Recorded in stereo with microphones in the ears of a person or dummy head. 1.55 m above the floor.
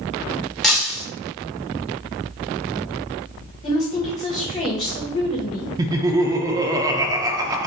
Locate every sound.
0.6 s breaking glass: 5° left (ahead or behind), 0.9 m
3.6 s a woman speaking: 35° left (ahead or behind), 1.7 m
5.8 s laughter: 20° right (ahead or behind), 0.5 m